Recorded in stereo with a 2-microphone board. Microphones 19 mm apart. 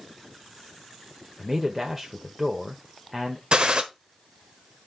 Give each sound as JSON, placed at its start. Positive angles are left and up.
{"t": 1.4, "sound": "a man speaking", "side_deg": -15, "distance_m": 1.2}
{"t": 3.5, "sound": "a gunshot", "side_deg": -50, "distance_m": 1.0}